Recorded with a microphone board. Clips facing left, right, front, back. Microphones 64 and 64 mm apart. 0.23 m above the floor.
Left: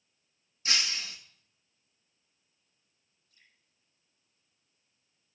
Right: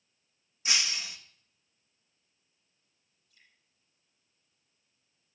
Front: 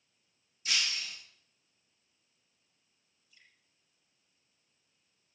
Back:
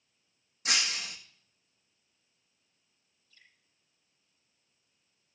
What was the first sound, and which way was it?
Breaking glass, 160° right.